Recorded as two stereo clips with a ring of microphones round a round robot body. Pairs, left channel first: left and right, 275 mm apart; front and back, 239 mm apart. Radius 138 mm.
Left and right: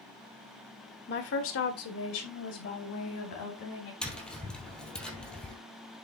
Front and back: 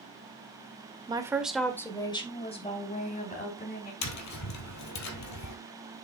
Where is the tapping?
5° left, 2.5 m.